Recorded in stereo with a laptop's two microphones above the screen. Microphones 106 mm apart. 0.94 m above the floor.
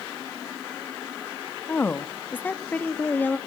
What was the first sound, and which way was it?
A woman speaking, 15° left (ahead or behind).